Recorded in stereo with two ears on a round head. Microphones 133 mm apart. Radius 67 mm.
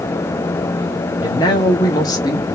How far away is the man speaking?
About 1.5 m.